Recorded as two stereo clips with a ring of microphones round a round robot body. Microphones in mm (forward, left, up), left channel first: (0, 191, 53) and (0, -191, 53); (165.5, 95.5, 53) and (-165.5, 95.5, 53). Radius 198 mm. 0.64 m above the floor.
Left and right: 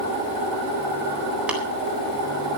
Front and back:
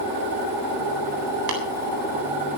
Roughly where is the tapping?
Behind.